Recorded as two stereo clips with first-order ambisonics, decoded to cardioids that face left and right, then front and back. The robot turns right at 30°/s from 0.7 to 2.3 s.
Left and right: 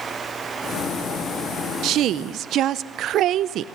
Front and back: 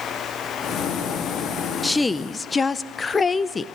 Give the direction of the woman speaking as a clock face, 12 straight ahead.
3 o'clock.